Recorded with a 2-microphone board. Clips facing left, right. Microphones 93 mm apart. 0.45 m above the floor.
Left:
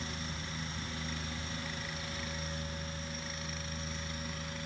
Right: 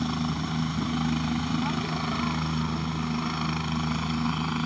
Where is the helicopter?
65° right (ahead or behind); by 4.7 s 70° right (ahead or behind).